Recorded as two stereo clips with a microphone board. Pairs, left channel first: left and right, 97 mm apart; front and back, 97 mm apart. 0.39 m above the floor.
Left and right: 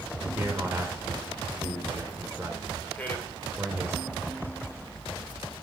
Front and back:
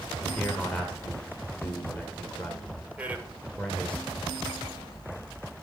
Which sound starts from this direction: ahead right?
A man speaking, at 0.2 s.